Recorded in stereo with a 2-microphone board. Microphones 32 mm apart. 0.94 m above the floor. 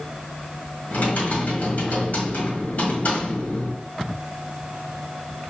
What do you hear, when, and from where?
0.9 s typing on a keyboard: 55° left (ahead or behind), 1.5 m